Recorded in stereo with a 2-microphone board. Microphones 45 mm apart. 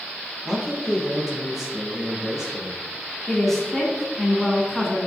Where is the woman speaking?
5° left (ahead or behind), 1.9 m.